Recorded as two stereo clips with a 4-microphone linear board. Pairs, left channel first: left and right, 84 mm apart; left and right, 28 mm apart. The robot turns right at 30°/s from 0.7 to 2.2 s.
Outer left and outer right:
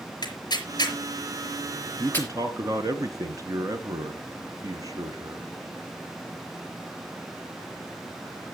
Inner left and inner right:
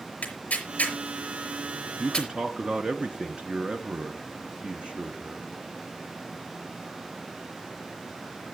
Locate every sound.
0.2 s tearing paper: 60° left (ahead or behind), 4 m; by 2.3 s 25° left (ahead or behind), 4 m
2.0 s a man speaking: 35° right (ahead or behind), 2 m; by 5.5 s 40° right (ahead or behind), 2 m